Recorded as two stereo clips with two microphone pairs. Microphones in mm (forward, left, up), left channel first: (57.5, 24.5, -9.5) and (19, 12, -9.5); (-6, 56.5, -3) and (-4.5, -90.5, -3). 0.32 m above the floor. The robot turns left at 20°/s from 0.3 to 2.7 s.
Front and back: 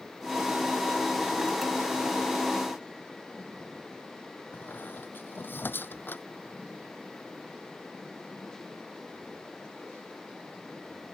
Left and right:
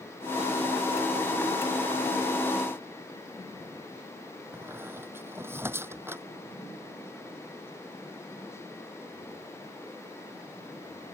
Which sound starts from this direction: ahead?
A squeak, at 4.5 s.